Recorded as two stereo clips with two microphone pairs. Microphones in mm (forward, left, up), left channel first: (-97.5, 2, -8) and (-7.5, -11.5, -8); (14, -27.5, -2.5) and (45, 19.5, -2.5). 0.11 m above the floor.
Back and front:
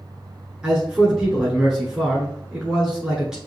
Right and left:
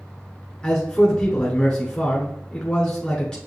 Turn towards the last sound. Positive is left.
turn(degrees=-85)